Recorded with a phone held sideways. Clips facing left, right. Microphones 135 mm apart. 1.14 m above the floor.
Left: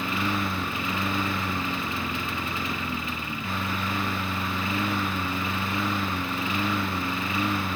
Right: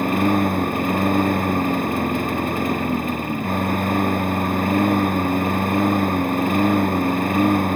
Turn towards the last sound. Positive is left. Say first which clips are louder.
# right 10 dB
turn(degrees=-50)  # may be behind; listen again after turning